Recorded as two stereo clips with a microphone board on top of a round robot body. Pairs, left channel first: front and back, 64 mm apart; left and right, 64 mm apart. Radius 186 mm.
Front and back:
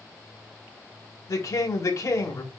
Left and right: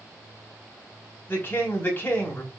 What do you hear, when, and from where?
1.3 s a woman speaking: 30° left, 3.5 m